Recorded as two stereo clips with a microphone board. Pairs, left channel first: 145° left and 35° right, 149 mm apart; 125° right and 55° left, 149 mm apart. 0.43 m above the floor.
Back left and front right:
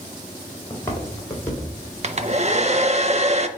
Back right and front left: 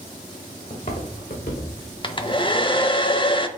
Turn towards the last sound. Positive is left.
turn(degrees=-70)